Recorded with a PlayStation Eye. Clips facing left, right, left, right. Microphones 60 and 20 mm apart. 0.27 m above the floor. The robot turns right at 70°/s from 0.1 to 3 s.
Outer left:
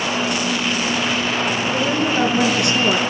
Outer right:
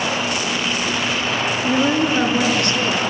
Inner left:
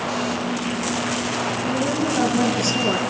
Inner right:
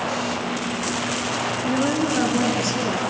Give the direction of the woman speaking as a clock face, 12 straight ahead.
2 o'clock.